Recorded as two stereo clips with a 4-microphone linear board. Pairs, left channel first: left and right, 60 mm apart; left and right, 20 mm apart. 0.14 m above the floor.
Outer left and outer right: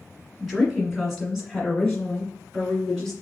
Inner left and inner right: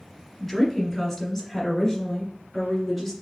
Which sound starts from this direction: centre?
A woman speaking, at 0.4 s.